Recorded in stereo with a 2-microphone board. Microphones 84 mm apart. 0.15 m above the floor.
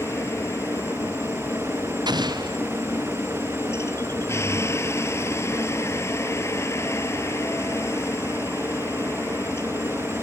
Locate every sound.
0.0 s a helicopter: 30° left (ahead or behind)
2.1 s an explosion: 55° right (ahead or behind)